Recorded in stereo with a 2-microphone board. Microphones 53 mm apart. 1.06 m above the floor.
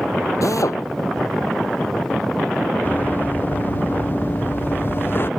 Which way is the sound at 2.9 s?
35° left (ahead or behind).